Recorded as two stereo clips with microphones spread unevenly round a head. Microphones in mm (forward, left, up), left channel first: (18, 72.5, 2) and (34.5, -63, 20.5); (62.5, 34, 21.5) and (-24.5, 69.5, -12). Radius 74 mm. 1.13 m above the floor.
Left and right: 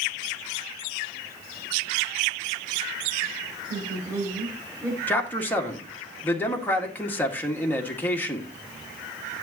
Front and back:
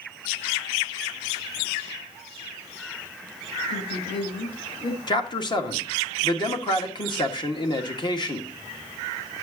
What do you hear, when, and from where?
3.7 s a woman speaking: 15° right, 5.5 m
5.1 s a man speaking: 20° left, 1.8 m